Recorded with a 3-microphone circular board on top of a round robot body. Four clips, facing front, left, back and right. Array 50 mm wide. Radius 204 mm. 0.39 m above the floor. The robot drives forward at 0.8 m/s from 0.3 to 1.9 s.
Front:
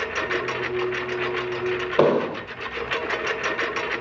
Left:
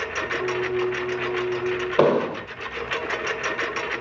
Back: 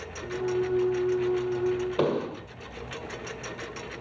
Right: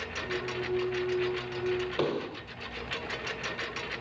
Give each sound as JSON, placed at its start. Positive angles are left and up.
{"t": 0.0, "sound": "a lawn mower", "azimuth_deg": 45}
{"t": 2.0, "sound": "an explosion", "azimuth_deg": 55}